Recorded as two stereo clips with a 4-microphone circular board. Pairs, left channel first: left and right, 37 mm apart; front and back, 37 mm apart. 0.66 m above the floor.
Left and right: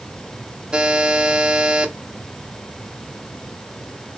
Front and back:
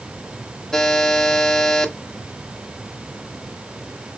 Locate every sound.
0.7 s a buzzer: 60° right, 0.9 m